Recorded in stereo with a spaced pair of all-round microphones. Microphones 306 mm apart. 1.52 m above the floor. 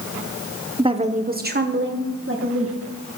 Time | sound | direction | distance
0.8 | a woman speaking | 15° right (ahead or behind) | 0.8 m